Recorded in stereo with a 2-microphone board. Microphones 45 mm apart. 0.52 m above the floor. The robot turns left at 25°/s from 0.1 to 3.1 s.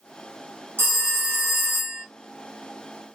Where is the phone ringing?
80° right, 1.1 m; by 2.0 s 110° right, 1.1 m.